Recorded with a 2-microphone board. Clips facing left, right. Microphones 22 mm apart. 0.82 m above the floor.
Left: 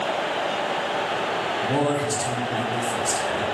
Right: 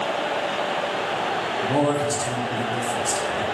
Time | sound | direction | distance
1.6 | a man speaking | centre (ahead or behind) | 0.6 m